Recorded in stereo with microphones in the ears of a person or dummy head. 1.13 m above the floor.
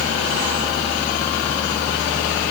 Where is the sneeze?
I don't hear a sneeze.